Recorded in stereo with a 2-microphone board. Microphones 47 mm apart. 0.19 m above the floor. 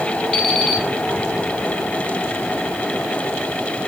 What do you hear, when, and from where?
0.3 s an alarm clock: 25° left (ahead or behind), 3.5 m